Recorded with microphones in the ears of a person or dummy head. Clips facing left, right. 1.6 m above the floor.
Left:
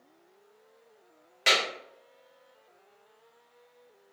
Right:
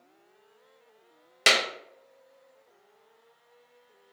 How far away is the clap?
About 0.5 m.